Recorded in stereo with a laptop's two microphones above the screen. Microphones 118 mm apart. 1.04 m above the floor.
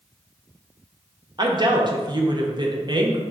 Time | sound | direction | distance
1.4 | a woman speaking | 40° right (ahead or behind) | 0.5 m